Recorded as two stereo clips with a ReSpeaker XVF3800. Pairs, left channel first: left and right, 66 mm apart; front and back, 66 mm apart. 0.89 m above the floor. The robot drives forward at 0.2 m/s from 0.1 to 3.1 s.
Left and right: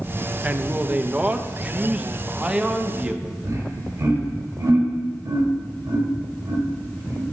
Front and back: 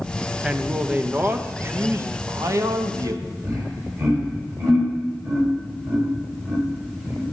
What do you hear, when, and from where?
0.4 s a man speaking: 125° right, 0.5 m; by 3.3 s 165° right, 0.8 m
3.4 s laughter: 140° right, 3.5 m